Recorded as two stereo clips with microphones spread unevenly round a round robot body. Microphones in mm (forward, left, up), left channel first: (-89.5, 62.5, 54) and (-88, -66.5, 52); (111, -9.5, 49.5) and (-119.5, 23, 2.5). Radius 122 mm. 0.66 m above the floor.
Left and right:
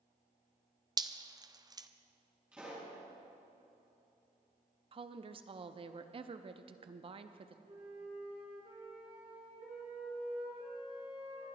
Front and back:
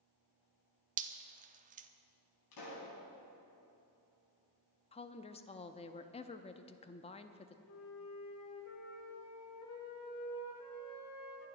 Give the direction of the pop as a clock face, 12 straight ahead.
12 o'clock.